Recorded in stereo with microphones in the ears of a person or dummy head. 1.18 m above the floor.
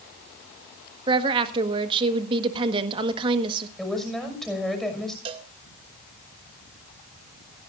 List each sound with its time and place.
1.1 s a woman speaking: 30° right (ahead or behind), 1.5 m
3.8 s a woman speaking: 5° left (ahead or behind), 6 m
5.2 s a cowbell: 30° right (ahead or behind), 2 m